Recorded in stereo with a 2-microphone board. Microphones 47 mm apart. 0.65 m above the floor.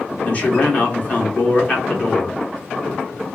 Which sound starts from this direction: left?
A man speaking, at 0.2 s.